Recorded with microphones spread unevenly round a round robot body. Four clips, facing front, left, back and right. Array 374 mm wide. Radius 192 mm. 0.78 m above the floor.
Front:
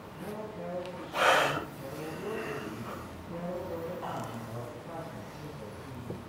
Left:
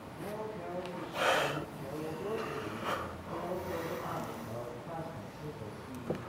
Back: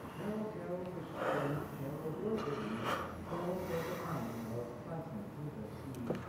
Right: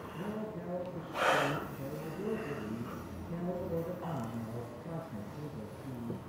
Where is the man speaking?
90° right, 9 m.